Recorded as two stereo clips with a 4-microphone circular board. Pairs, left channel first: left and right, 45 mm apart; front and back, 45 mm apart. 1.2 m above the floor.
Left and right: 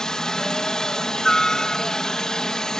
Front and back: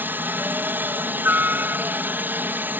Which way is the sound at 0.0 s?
160° left.